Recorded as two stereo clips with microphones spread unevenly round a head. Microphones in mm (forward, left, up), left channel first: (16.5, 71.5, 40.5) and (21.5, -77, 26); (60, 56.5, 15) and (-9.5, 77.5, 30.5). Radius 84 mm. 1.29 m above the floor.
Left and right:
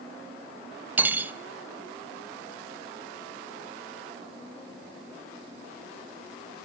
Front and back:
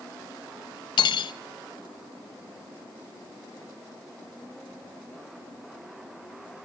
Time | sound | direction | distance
1.0 | cutlery clinking | 10° right | 0.7 m